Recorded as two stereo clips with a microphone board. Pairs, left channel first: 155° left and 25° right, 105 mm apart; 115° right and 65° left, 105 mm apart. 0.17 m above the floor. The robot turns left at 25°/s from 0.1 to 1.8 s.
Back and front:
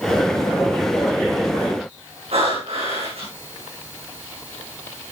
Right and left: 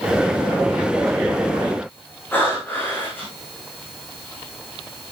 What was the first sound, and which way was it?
Breathing, 40° right.